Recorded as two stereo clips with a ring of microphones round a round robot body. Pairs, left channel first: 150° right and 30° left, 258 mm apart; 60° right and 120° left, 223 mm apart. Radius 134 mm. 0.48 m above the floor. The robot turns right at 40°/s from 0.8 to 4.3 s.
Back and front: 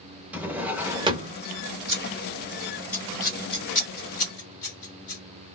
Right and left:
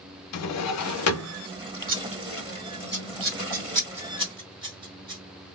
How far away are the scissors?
About 1.8 m.